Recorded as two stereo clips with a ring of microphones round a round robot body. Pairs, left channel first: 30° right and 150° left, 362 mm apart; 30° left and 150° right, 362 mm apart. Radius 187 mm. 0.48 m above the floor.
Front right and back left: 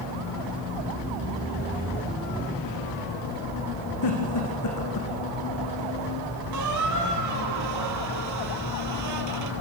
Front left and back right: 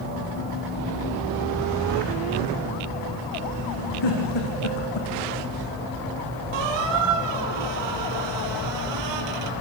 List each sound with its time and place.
4.0 s a giggle: 10° left, 6.5 m
6.5 s a squeak: 165° right, 2.5 m